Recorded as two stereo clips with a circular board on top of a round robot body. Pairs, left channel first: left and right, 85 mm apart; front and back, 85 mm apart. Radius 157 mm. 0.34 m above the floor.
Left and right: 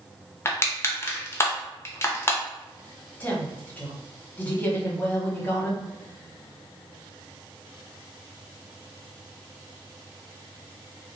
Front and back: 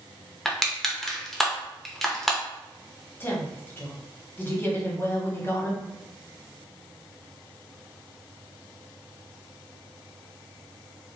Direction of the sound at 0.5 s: 85° left.